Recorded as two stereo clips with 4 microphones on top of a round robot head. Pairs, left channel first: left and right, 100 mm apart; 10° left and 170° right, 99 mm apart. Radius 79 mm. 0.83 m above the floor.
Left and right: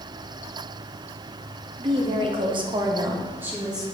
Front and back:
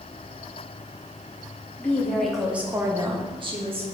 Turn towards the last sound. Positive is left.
turn(degrees=-175)